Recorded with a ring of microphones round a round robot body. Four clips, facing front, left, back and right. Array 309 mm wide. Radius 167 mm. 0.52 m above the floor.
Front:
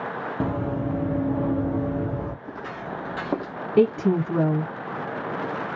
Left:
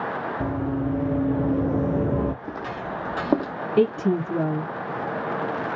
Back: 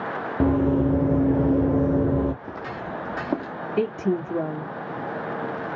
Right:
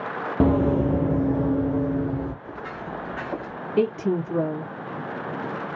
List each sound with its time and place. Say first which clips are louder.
0.4 s running footsteps: right 9 dB, back 8 dB; 110° right, 0.8 m; by 2.3 s 130° left, 0.8 m
2.4 s footsteps: left 3 dB, back 1 dB; 120° left, 1.2 m; by 3.5 s 80° left, 0.9 m
3.8 s a woman speaking: left 2 dB, front 5 dB; 15° left, 1.7 m